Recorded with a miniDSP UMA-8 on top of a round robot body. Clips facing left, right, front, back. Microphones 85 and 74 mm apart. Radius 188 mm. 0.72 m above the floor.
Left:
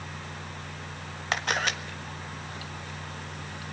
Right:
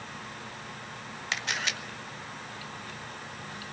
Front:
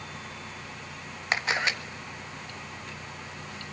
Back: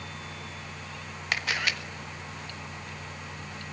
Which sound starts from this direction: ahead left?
A camera shutter, at 1.3 s.